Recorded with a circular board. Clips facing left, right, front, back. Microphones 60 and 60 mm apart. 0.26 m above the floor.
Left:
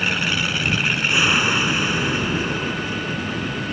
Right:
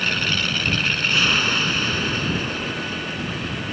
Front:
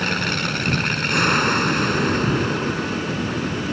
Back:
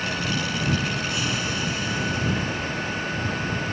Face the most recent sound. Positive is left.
turn(degrees=15)